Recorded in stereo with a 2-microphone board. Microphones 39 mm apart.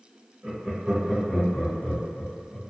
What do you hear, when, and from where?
0.4 s laughter: 30° right (ahead or behind), 1.2 m; by 2.6 s 45° left (ahead or behind), 1.7 m